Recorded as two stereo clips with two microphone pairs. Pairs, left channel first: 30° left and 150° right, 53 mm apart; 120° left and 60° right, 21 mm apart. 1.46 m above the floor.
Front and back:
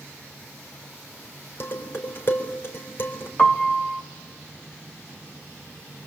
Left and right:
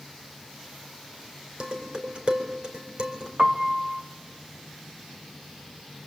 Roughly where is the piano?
Ahead right.